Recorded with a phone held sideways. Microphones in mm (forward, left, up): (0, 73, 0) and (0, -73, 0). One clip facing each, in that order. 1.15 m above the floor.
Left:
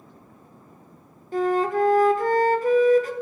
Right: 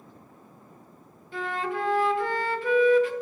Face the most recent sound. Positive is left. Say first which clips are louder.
# left 9 dB
turn(degrees=40)  # may be behind; listen again after turning